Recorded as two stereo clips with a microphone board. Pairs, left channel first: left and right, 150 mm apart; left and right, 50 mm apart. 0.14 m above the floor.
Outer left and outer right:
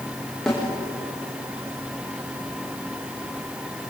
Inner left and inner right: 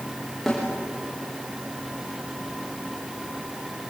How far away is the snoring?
No snoring in this recording.